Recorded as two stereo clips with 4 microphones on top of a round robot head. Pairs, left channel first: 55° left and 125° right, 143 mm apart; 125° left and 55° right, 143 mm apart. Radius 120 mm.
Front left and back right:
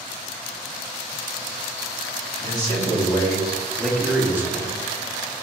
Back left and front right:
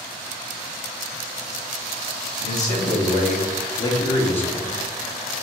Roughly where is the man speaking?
Left.